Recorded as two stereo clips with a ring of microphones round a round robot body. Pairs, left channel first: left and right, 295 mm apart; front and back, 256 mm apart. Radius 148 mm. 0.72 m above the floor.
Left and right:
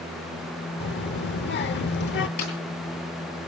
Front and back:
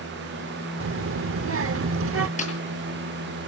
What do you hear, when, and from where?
0.8 s a child speaking: 145° left, 1.0 m
2.4 s a snare drum: 60° left, 9.5 m